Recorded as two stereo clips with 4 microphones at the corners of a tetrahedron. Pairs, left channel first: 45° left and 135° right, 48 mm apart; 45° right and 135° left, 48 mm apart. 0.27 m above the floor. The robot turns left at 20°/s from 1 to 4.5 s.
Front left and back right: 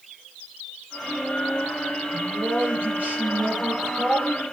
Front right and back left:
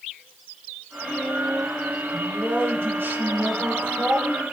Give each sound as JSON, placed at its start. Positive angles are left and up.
{"t": 2.1, "sound": "a man speaking", "azimuth_deg": -175, "distance_m": 5.5}